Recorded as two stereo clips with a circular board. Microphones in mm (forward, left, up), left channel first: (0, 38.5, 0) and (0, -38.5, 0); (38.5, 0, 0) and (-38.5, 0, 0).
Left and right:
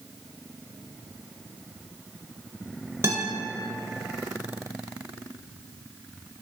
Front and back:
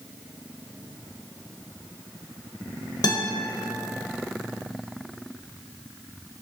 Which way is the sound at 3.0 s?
35° right.